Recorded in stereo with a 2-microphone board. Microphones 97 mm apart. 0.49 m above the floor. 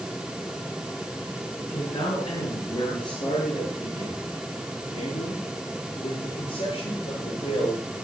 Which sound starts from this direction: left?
A man speaking, at 1.6 s.